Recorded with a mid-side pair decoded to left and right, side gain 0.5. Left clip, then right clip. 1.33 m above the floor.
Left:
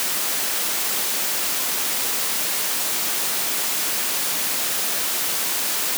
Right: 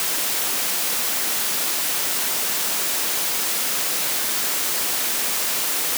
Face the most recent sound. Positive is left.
No sound to turn to.